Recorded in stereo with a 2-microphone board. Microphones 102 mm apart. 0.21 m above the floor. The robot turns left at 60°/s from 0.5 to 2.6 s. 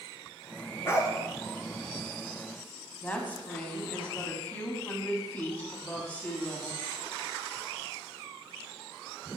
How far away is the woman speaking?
About 1.1 m.